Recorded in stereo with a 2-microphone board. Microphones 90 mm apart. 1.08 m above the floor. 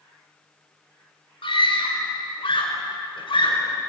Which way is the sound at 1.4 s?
75° left (ahead or behind).